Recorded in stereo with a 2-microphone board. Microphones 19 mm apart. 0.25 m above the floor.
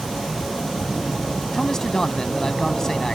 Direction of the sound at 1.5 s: 30° left (ahead or behind).